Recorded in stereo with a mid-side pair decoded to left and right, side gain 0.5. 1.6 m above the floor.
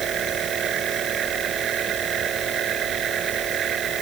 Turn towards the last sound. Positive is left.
turn(degrees=-50)